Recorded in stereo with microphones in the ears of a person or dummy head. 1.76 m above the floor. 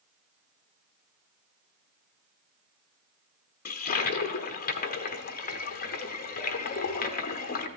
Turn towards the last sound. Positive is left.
turn(degrees=45)  # may be behind; listen again after turning